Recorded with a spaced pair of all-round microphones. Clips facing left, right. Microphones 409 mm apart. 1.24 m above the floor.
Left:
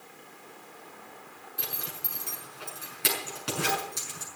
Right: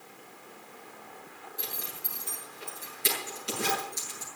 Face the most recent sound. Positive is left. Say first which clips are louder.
# left 1 dB
turn(degrees=85)